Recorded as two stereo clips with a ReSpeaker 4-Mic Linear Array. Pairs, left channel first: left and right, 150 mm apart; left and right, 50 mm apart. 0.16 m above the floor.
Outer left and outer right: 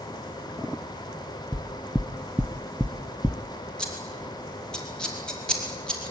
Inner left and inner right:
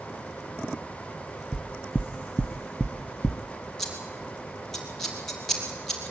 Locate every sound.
1.5 s knocking: centre (ahead or behind), 0.7 m
3.8 s scissors: 5° left (ahead or behind), 4.5 m